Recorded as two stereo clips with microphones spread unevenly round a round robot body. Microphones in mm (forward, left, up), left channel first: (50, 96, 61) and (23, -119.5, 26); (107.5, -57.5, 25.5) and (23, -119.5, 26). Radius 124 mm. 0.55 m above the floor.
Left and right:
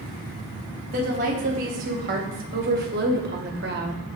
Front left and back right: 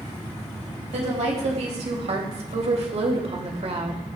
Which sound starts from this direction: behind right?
A woman speaking, at 0.9 s.